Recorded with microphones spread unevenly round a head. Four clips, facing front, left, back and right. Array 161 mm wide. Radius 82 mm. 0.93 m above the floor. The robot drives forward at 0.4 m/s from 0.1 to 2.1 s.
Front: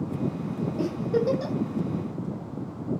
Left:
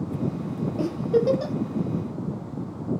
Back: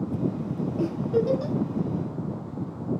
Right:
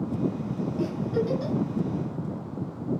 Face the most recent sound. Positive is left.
turn(degrees=60)